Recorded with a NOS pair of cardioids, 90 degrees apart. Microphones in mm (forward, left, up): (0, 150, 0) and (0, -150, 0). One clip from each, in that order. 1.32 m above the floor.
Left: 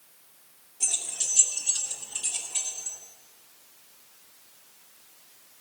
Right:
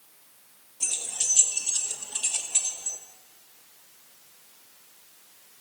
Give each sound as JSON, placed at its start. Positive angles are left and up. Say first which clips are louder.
{"t": 0.8, "sound": "keys jangling", "louder": "even", "azimuth_deg": -5, "distance_m": 1.3}